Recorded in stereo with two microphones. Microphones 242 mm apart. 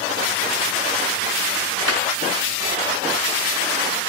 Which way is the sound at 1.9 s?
75° right (ahead or behind).